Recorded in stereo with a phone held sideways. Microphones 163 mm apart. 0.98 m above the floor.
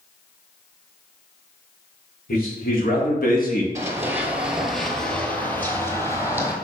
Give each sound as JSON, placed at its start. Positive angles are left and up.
{"t": 2.3, "sound": "a man speaking", "side_deg": 65, "distance_m": 2.0}
{"t": 3.8, "sound": "running footsteps", "side_deg": -20, "distance_m": 1.0}